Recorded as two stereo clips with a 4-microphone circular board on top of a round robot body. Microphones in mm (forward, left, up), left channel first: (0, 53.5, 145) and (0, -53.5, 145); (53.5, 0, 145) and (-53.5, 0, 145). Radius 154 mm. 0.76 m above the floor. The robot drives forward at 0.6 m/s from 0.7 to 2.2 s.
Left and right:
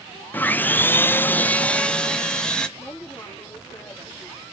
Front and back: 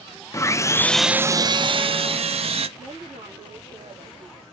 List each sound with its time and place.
0.3 s sawing: 30° left, 0.5 m; by 2.7 s 170° left, 0.9 m
2.8 s a woman speaking: 150° left, 4.5 m